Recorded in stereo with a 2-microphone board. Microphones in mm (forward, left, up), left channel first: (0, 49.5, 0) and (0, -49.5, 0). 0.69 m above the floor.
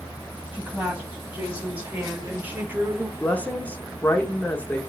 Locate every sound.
0.5 s a woman speaking: 10° right (ahead or behind), 5 m; by 3.1 s 25° right (ahead or behind), 1.3 m
3.2 s a woman speaking: 15° left (ahead or behind), 1.5 m